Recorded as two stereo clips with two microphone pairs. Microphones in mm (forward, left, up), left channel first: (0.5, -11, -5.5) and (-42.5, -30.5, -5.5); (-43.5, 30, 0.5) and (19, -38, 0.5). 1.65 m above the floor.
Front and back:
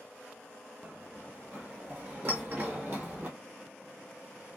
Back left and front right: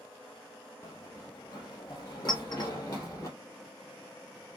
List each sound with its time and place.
0.8 s running footsteps: 165° left, 3.5 m; by 3.3 s 170° left, 2 m
2.3 s a clink: 170° left, 1.4 m